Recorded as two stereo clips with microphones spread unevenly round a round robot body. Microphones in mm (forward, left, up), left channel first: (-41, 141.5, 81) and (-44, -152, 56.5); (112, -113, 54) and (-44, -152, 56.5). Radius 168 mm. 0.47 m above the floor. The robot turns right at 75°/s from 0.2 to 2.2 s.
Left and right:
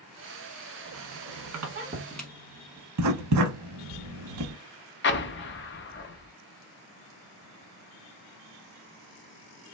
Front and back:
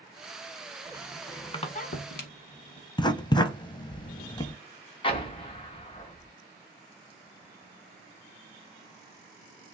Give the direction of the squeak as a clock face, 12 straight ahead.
3 o'clock.